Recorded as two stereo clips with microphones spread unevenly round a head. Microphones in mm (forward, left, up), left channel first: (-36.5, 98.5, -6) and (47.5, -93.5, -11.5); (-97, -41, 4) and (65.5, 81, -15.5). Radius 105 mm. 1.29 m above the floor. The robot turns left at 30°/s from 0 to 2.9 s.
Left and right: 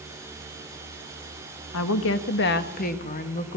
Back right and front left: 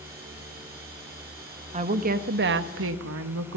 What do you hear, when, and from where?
1.7 s a woman speaking: 95° left, 1.5 m; by 3.6 s 60° left, 1.5 m